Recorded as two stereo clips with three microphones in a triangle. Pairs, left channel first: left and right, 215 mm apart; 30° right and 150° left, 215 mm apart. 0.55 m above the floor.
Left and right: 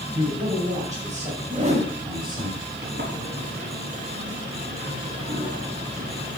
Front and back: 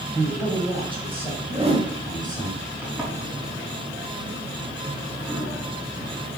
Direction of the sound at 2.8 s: 125° right.